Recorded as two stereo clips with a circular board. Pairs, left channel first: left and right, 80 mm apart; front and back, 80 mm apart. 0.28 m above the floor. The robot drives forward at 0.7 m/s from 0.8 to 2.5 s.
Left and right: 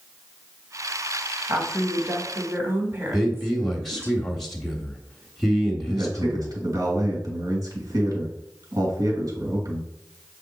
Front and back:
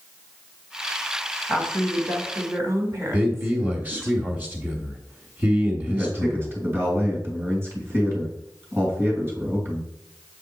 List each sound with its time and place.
1.5 s a woman speaking: 115° right, 1.4 m; by 4.1 s 145° right, 1.7 m
3.1 s a man speaking: 170° left, 1.0 m
5.8 s a man speaking: 125° right, 2.5 m